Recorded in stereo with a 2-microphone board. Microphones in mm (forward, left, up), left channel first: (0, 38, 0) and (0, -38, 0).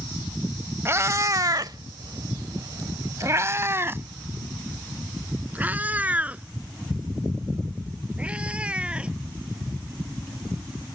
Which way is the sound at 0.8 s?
30° right (ahead or behind).